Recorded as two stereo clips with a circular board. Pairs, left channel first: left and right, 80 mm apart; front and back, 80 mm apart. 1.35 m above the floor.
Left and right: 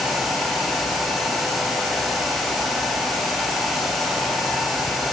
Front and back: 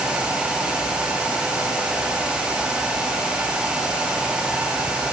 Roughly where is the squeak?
I don't hear a squeak.